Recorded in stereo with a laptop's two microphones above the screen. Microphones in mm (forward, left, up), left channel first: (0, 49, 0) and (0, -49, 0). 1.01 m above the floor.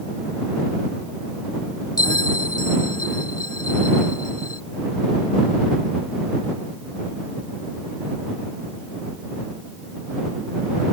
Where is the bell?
40° left (ahead or behind).